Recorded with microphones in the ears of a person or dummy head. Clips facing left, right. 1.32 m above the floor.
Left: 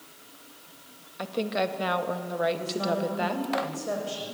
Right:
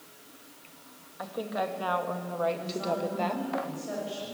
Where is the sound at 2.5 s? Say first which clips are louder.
Left 3 dB; 60° left (ahead or behind), 7 m.